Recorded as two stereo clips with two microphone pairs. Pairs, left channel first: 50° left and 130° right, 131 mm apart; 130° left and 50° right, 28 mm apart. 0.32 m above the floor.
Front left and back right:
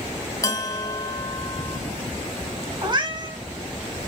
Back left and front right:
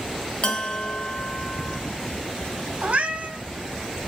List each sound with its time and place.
0.4 s a bell: 100° left, 0.7 m
2.8 s a cat meowing: 70° right, 0.6 m